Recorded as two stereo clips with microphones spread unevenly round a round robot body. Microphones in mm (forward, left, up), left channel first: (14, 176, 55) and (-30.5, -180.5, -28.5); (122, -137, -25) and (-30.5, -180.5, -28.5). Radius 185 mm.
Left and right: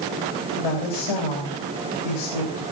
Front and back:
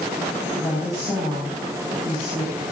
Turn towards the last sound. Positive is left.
turn(degrees=105)